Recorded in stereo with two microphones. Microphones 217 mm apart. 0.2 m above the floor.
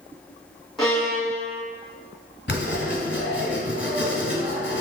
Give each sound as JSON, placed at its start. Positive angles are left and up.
{"t": 0.8, "sound": "a violin", "side_deg": 0, "distance_m": 1.5}
{"t": 2.5, "sound": "writing", "side_deg": 55, "distance_m": 1.2}